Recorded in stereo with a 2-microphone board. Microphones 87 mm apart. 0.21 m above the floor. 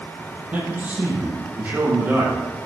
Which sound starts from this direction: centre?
A man speaking, at 0.5 s.